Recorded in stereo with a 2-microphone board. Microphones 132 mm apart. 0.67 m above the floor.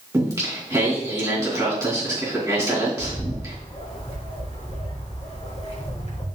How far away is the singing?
About 3.5 m.